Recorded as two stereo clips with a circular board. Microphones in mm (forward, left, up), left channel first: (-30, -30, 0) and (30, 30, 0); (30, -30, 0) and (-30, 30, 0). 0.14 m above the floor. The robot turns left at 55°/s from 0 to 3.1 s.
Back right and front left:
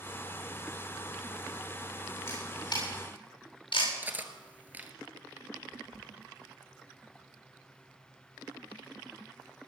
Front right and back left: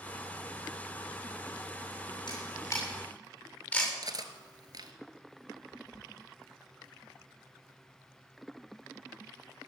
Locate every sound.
2.3 s a camera shutter: 75° right, 8 m; by 3.9 s 125° right, 8 m
4.0 s cutlery clinking: 110° left, 1.3 m